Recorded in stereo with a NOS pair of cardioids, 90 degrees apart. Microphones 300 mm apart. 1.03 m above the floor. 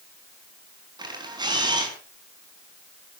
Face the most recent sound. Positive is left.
turn(degrees=-15)